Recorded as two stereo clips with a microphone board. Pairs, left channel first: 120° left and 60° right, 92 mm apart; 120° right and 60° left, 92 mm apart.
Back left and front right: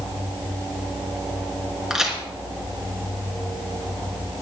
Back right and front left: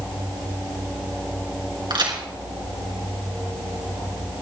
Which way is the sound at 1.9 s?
25° left.